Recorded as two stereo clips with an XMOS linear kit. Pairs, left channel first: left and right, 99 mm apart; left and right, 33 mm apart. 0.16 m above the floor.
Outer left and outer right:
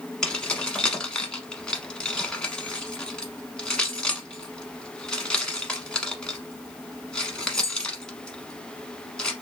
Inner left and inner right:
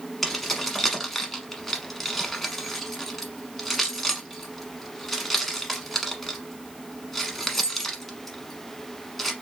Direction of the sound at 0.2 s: 10° left (ahead or behind).